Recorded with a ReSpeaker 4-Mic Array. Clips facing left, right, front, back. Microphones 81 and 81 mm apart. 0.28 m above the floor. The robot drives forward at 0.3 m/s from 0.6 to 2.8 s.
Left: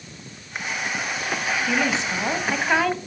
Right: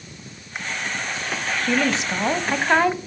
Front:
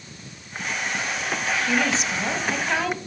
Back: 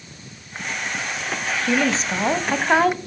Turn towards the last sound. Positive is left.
turn(degrees=-155)